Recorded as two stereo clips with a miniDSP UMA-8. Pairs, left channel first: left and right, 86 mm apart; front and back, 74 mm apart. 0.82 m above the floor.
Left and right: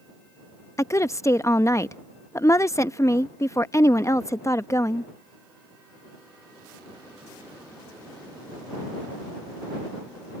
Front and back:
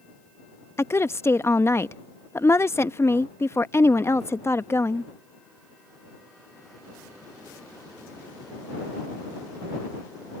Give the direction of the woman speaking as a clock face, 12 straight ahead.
11 o'clock.